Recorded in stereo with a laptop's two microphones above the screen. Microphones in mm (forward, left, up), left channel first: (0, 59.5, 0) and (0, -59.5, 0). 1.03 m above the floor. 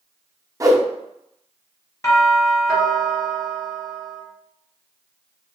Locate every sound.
0.6 s a whoosh: 30° right (ahead or behind), 0.6 m
2.0 s a doorbell: 30° left (ahead or behind), 1.6 m